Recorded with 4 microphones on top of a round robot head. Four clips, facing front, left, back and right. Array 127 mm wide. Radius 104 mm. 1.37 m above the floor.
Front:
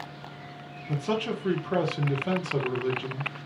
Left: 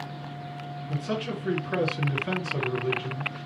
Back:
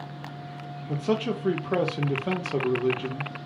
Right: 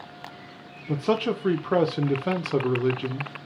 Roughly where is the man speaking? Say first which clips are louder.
Right 7 dB, back 2 dB; right.